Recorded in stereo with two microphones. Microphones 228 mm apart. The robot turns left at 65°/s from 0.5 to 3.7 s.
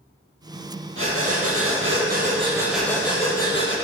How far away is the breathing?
About 4 m.